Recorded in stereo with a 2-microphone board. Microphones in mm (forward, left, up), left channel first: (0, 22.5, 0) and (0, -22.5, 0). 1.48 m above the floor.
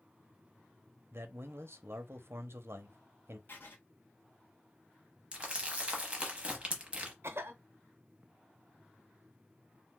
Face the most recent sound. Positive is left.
turn(degrees=-65)  # may be behind; listen again after turning